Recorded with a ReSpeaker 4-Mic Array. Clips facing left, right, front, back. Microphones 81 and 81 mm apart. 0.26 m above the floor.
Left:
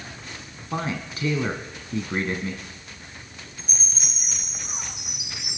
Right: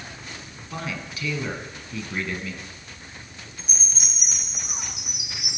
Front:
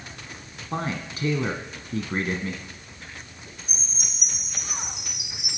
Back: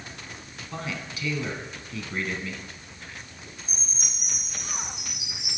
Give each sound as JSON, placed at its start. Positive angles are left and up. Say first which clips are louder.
{"t": 0.7, "sound": "a man speaking", "louder": "left 4 dB, front 5 dB", "azimuth_deg": 40, "distance_m": 2.0}
{"t": 3.6, "sound": "a chime", "louder": "even, even", "azimuth_deg": -10, "distance_m": 8.0}